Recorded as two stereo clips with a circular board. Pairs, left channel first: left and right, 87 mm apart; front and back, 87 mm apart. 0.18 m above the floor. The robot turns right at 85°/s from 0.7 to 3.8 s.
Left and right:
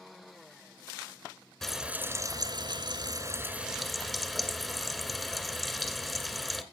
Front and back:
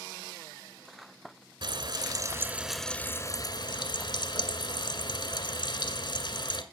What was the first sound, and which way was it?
Frying, 175° left.